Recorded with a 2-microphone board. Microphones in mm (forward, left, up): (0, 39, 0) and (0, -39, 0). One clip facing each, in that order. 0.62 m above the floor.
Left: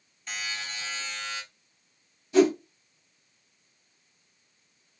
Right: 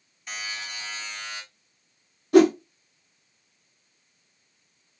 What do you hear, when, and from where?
0.3 s a buzzer: 10° right (ahead or behind), 1.8 m
2.3 s a whoosh: 65° right (ahead or behind), 0.7 m